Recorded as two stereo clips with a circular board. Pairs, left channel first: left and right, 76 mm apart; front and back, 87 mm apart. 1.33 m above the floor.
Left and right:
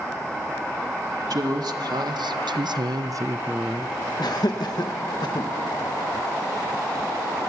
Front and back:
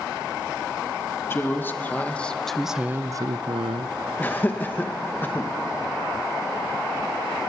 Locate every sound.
1.3 s a woman speaking: 65° right, 1.6 m; by 4.0 s straight behind, 0.8 m
4.2 s laughter: 70° left, 1.5 m